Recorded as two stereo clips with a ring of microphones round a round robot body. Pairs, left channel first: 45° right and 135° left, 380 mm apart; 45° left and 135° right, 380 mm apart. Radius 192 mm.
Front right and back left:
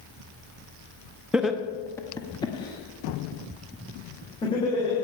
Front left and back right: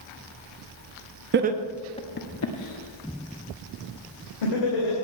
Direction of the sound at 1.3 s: 140° right.